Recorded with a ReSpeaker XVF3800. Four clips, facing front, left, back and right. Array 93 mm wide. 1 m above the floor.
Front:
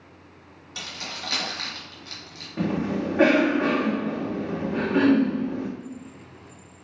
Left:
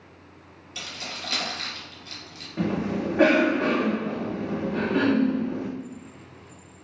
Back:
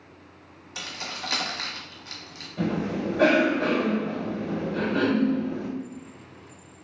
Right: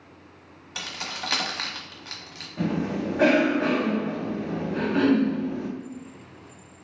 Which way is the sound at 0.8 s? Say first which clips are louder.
Right 3 dB, back 1 dB; 100° right.